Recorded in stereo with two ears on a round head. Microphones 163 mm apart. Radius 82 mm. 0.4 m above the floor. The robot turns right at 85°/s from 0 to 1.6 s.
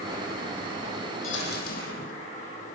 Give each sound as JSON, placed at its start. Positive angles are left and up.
{"t": 1.2, "sound": "a dropped coin", "azimuth_deg": 95, "distance_m": 6.5}